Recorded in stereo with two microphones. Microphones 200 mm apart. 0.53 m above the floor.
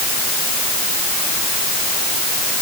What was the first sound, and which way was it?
Only background noise.